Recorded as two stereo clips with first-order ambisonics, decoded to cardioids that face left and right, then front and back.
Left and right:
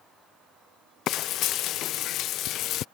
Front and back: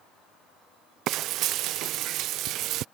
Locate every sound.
1.1 s frying: 135° left